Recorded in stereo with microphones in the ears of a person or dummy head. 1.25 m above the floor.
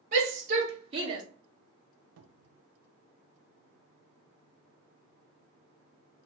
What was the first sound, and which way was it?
A shout, 45° right (ahead or behind).